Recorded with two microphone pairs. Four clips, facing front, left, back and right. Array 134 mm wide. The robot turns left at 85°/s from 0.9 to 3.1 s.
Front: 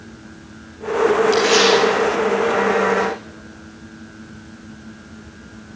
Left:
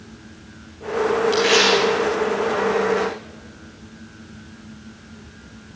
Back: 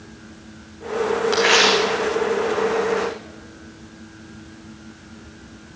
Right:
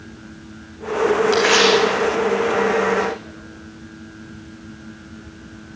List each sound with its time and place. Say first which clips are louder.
1.3 s tearing paper: right 2 dB, front 3 dB; 125° right, 8.5 m; by 3.1 s 85° left, 8.5 m